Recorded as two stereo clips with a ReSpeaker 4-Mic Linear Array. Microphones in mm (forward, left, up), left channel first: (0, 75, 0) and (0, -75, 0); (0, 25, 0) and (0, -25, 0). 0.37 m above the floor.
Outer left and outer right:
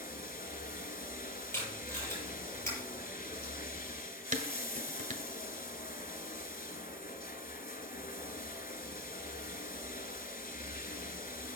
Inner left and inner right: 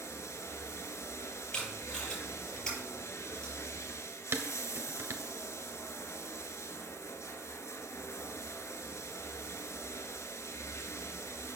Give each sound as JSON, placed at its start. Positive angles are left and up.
{"t": 0.0, "sound": "running water", "side_deg": 80, "distance_m": 1.3}
{"t": 1.5, "sound": "tape being pulled", "side_deg": 15, "distance_m": 7.0}
{"t": 4.3, "sound": "dishes clattering", "side_deg": -55, "distance_m": 1.2}